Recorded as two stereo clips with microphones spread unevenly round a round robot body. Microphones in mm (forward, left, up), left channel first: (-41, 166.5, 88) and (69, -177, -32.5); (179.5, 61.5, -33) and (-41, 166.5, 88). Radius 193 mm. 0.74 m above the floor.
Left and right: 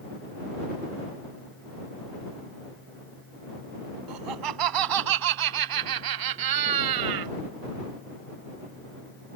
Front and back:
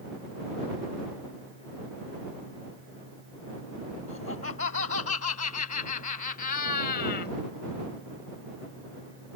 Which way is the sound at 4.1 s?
90° right.